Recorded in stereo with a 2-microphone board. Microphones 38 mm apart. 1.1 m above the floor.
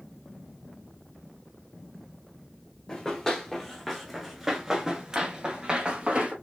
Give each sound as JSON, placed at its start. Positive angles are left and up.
{"t": 2.9, "sound": "running footsteps", "side_deg": 20, "distance_m": 1.4}